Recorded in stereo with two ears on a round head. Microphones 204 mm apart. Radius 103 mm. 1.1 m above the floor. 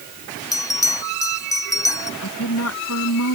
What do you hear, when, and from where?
0.5 s a bell: 15° left (ahead or behind)
2.2 s a woman speaking: 70° left (ahead or behind)